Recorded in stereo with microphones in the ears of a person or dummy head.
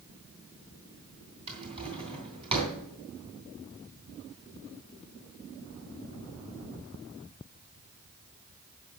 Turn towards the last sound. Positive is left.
turn(degrees=-35)  # may be behind; listen again after turning